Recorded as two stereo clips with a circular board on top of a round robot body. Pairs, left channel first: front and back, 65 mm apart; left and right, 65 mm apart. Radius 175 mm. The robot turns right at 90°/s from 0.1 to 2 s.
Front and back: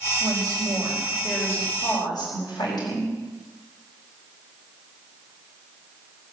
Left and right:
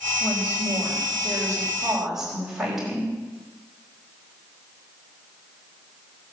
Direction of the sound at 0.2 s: 170° right.